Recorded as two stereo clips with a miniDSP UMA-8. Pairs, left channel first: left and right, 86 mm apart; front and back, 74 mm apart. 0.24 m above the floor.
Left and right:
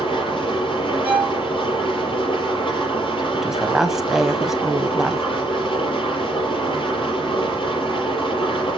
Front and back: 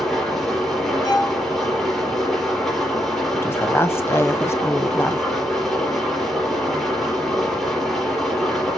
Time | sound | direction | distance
0.0 | an engine running | 90° left | 5.5 m
1.0 | a violin | 20° right | 3 m
3.3 | a woman speaking | 10° right | 1.1 m